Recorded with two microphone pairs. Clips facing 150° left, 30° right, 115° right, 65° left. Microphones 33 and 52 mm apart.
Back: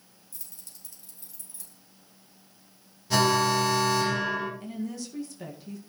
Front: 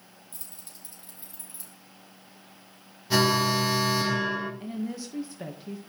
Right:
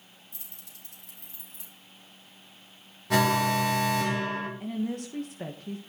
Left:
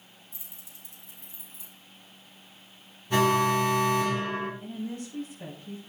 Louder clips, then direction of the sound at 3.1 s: Even, left 1 dB; 115° right.